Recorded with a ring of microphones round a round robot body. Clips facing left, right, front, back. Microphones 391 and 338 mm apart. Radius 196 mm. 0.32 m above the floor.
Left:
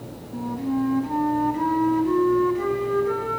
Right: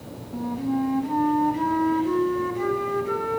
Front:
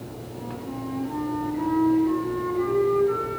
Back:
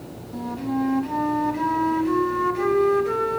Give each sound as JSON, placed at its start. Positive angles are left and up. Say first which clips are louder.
{"t": 0.3, "sound": "a flute", "louder": "even, back 10 dB", "azimuth_deg": -175, "distance_m": 2.0}